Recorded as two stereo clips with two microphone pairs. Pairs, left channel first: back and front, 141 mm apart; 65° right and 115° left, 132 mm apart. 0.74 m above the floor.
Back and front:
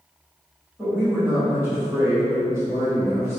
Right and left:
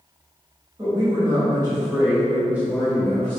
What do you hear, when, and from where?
0.8 s a woman speaking: 70° left, 1.9 m; by 3.4 s 20° right, 1.0 m